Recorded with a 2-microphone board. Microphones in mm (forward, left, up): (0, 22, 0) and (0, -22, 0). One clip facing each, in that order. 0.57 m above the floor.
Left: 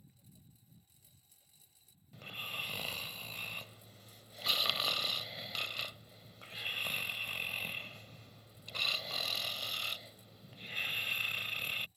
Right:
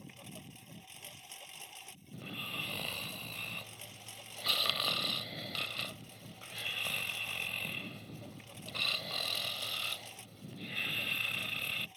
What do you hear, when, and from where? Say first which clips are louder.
0.0 s a lawn mower: right 14 dB; 85° right
2.1 s snoring: right 1 dB; 5° right (ahead or behind)